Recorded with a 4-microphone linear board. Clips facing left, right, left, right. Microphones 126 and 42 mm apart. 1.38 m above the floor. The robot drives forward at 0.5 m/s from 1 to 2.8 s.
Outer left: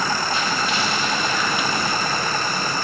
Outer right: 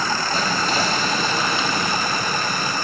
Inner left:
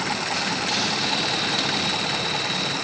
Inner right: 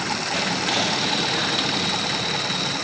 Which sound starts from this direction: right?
Whispering, at 0.3 s.